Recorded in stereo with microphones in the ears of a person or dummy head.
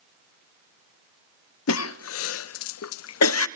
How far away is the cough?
About 0.6 m.